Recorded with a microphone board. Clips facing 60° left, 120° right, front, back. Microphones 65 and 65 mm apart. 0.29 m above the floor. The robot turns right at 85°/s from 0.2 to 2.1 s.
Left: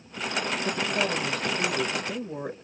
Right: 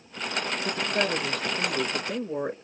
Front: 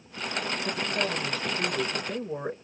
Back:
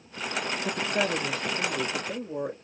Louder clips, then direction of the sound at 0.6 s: Right 2 dB, back 4 dB; straight behind.